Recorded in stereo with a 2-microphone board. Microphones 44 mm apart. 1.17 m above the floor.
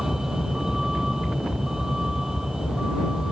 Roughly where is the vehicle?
Centre.